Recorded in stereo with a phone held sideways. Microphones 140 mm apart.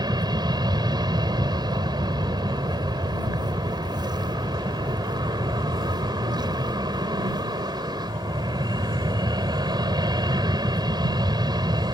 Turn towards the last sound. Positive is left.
turn(degrees=-30)  # may be behind; listen again after turning